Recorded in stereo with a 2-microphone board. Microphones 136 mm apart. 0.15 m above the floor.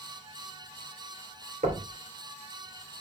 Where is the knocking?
60° right (ahead or behind), 2.5 m.